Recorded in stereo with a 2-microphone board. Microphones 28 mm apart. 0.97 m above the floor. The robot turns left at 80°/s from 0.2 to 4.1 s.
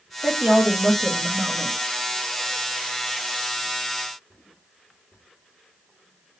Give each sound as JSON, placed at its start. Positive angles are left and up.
{"t": 0.2, "sound": "a woman speaking", "azimuth_deg": -40, "distance_m": 1.4}